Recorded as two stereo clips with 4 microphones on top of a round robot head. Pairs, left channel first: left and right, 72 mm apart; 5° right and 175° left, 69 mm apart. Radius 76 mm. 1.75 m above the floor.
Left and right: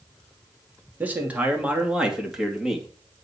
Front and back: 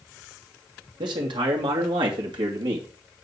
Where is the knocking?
I don't hear knocking.